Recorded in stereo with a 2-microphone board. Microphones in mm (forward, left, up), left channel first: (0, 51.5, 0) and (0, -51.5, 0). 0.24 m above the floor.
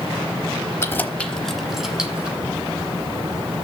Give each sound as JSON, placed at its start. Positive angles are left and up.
{"t": 0.8, "sound": "keys jangling", "side_deg": 25, "distance_m": 0.8}